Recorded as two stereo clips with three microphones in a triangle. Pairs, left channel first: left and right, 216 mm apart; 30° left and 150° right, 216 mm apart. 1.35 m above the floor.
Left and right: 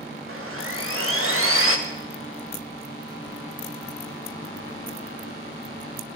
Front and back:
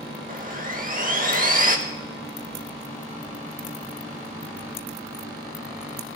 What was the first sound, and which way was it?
Sawing, 100° right.